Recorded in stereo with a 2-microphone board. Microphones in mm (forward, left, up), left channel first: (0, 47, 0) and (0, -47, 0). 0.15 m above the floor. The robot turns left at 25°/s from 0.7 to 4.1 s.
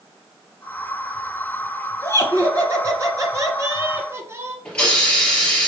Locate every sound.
2.0 s laughter: 75° right, 1.4 m; by 4.5 s 125° right, 1.4 m
4.7 s a hiss: 10° left (ahead or behind), 4 m